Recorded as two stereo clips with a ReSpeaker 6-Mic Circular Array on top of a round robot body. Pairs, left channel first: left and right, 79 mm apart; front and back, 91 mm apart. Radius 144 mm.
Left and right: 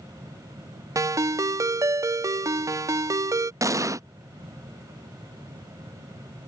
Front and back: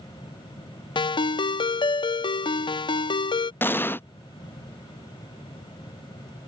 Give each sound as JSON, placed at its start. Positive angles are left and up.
{"t": 0.9, "sound": "a ringtone", "azimuth_deg": -40}
{"t": 3.6, "sound": "an explosion", "azimuth_deg": -60}